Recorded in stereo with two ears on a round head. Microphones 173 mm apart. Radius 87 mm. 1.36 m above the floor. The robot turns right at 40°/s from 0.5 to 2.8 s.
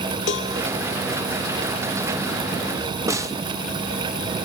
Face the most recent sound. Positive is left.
turn(degrees=-15)  # may be behind; listen again after turning